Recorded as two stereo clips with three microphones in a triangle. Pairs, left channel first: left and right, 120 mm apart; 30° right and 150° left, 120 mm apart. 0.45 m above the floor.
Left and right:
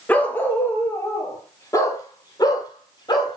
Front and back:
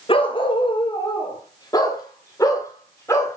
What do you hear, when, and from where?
0.1 s a dog barking: 15° left, 2.5 m; by 3.4 s 40° left, 4.5 m